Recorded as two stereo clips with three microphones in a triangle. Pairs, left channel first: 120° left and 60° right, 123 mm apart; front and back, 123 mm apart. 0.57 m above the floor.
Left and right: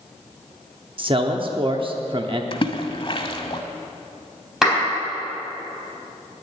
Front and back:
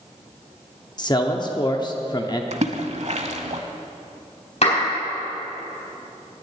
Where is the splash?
160° left, 0.8 m.